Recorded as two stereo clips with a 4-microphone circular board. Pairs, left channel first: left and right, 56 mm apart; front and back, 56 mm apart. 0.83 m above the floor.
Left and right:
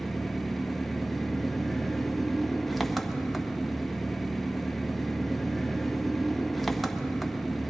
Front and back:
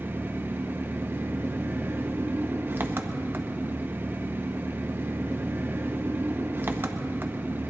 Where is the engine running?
Straight behind, 0.7 m.